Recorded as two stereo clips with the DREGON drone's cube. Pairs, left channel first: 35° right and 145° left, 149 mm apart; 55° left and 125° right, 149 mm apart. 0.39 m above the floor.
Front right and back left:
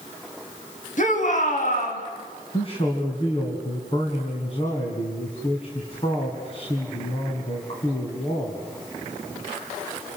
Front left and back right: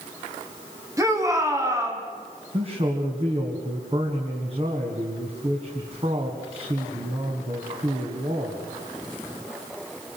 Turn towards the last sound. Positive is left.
turn(degrees=-80)